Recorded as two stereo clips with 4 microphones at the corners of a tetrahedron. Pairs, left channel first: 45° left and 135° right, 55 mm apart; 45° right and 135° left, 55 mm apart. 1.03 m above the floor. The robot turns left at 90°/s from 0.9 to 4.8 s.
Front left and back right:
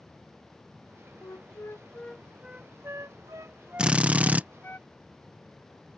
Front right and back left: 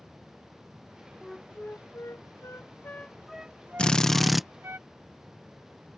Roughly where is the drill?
Right.